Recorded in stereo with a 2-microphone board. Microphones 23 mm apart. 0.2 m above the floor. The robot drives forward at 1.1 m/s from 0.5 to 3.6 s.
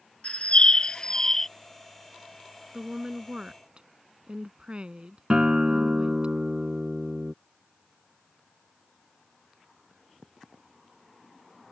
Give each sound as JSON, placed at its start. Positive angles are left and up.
{"t": 0.2, "sound": "a bird", "side_deg": 60}
{"t": 2.7, "sound": "a woman speaking", "side_deg": -35}
{"t": 5.3, "sound": "a guitar", "side_deg": -40}